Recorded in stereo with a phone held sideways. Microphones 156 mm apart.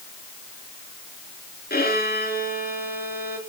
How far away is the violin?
About 3 m.